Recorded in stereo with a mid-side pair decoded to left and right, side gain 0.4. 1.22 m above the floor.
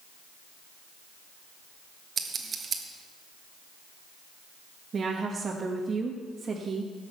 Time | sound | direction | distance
2.2 | scissors | 50° right | 1.7 m
4.9 | a woman speaking | 45° right | 1.7 m